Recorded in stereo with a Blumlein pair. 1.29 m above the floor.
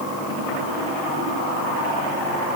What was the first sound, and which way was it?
Only background noise.